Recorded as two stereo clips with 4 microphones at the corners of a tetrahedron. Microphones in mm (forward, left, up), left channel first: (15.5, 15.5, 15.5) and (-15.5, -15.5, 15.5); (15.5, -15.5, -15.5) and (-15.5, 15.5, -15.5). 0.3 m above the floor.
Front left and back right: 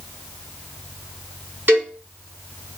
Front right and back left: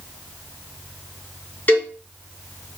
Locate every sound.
1.7 s a cowbell: 95° right, 3 m